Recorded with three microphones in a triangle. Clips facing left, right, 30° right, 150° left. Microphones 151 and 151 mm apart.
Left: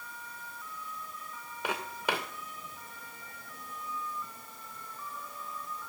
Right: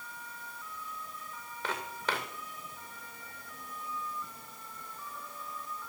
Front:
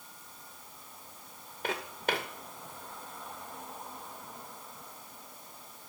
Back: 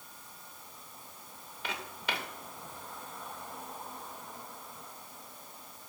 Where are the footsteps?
10° left, 1.9 m.